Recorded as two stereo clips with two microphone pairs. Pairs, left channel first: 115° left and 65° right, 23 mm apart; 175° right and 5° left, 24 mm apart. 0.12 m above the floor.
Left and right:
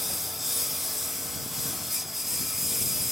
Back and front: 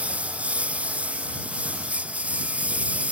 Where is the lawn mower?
15° left.